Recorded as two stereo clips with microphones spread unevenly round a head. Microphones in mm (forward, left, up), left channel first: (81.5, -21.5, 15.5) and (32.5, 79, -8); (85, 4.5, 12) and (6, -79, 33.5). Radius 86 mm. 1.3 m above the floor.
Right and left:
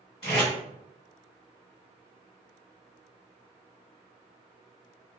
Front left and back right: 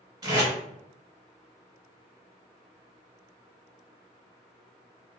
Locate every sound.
0.2 s tape being pulled: 100° right, 1.7 m